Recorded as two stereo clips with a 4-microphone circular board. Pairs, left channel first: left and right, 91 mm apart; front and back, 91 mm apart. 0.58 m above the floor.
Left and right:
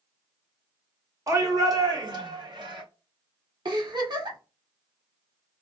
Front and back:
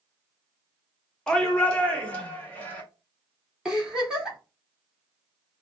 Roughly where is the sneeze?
No sneeze in this recording.